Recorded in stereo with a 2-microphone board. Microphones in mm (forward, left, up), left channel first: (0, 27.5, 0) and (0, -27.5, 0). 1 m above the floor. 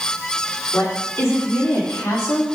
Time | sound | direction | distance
0.7 | a woman speaking | 50° left (ahead or behind) | 3 m